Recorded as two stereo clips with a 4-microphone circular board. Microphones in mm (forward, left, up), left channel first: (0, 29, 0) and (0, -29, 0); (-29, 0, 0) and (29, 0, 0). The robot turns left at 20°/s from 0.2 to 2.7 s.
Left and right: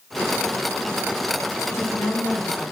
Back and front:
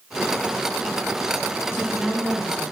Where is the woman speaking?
90° left, 2.5 m; by 2.7 s 65° left, 2.5 m.